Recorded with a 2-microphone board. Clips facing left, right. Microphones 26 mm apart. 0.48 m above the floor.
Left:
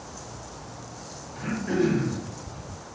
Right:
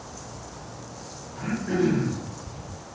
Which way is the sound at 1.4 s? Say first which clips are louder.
Even; 5° left (ahead or behind).